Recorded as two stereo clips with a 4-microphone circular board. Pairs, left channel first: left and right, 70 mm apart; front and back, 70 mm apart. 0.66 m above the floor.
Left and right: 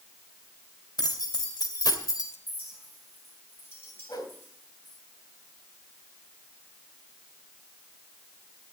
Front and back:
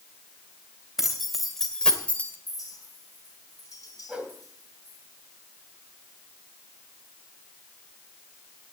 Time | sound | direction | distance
1.0 | keys jangling | 95° left | 3 m
2.5 | a clink | 35° left | 4.5 m
4.1 | a whoosh | 105° left | 2.5 m